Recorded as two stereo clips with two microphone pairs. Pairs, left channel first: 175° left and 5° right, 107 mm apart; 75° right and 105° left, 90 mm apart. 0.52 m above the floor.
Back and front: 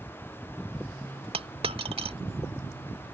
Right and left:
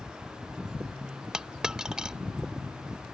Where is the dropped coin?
25° left.